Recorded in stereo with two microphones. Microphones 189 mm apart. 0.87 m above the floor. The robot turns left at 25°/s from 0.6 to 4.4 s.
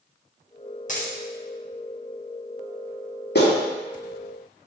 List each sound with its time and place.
0.9 s a dropped coin: 45° left (ahead or behind), 0.7 m
3.4 s a clap: 65° left (ahead or behind), 1.2 m